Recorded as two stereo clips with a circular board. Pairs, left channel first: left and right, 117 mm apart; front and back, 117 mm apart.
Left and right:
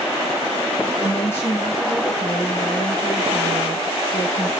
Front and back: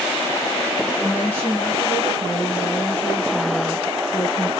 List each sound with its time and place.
1.0 s a woman speaking: 75° left, 4 m